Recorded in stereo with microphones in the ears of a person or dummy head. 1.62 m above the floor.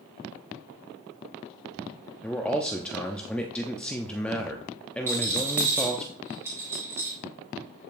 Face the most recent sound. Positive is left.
turn(degrees=-15)  # may be behind; listen again after turning